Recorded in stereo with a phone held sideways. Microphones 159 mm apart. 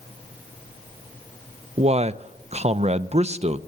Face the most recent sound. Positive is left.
turn(degrees=-45)  # may be behind; listen again after turning